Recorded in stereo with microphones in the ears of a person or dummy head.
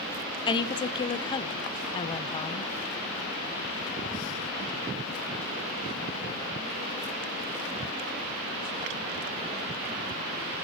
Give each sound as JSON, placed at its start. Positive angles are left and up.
{"t": 0.5, "sound": "a woman speaking", "side_deg": 25, "distance_m": 0.5}